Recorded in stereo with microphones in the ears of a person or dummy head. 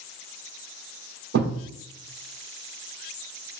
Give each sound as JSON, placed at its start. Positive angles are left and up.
{"t": 1.3, "sound": "a thud", "side_deg": -55, "distance_m": 2.0}